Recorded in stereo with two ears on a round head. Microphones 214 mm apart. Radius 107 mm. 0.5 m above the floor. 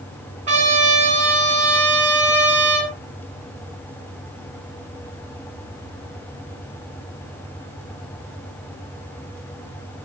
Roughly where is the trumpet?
Right.